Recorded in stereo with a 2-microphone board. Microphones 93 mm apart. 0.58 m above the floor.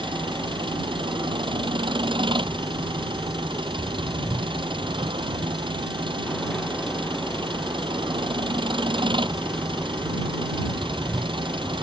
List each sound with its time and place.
0.0 s an engine running: 60° right (ahead or behind)